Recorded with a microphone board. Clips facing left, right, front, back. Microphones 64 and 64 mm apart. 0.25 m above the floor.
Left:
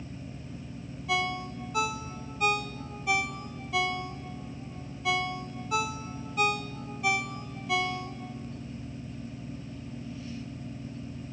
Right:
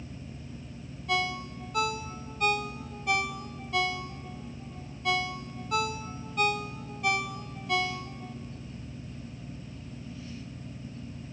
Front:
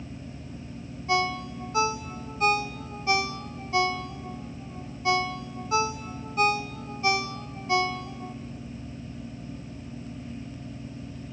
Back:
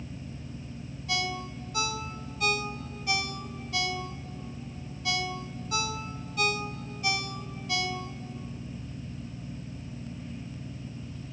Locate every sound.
1.1 s a ringtone: straight ahead, 0.6 m